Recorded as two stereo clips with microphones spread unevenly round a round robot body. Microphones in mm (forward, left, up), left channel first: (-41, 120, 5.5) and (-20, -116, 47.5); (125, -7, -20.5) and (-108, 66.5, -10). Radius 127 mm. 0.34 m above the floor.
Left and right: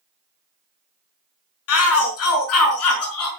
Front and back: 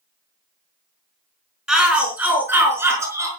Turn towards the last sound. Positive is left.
turn(degrees=85)